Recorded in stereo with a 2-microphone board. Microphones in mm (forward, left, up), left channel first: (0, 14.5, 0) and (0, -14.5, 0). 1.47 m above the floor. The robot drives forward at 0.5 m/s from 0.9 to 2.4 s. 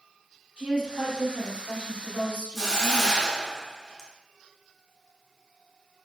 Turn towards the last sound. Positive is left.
turn(degrees=5)  # may be behind; listen again after turning